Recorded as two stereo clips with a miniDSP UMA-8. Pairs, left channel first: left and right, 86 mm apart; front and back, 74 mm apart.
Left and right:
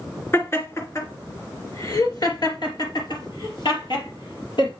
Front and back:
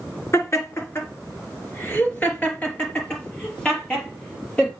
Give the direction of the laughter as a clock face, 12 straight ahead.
11 o'clock.